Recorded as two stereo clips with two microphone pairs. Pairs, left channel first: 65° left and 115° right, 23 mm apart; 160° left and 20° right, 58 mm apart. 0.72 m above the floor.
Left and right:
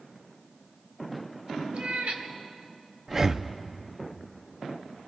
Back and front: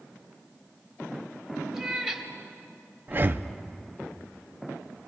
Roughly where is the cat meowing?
Right.